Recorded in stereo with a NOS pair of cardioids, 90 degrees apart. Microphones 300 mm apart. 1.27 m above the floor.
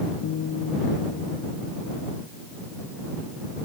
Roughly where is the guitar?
Ahead left.